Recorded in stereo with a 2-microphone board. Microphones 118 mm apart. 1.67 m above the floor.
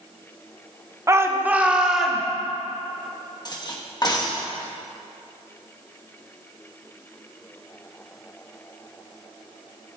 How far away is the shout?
About 0.8 m.